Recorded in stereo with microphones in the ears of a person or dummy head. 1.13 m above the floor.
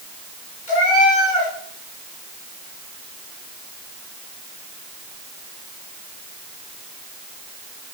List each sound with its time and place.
0.7 s a cat meowing: 35° left (ahead or behind), 4 m